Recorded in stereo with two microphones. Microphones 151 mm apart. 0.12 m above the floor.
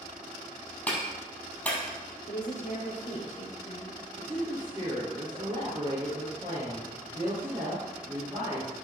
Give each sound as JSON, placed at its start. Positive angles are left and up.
{"t": 0.9, "sound": "a clap", "side_deg": 10, "distance_m": 3.0}
{"t": 2.3, "sound": "a woman speaking", "side_deg": 55, "distance_m": 2.5}
{"t": 4.2, "sound": "a woman speaking", "side_deg": -25, "distance_m": 2.5}